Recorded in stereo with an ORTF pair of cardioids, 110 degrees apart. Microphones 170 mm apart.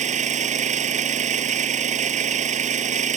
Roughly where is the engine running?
Ahead right.